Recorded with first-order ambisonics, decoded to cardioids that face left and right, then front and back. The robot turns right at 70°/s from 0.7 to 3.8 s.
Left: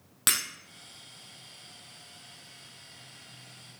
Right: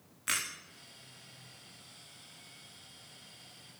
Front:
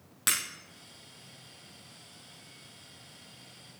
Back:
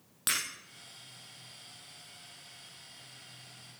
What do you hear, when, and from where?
0.3 s breaking glass: 80° left, 2.5 m